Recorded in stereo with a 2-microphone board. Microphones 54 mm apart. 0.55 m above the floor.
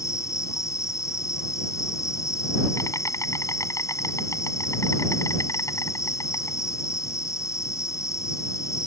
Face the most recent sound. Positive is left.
turn(degrees=80)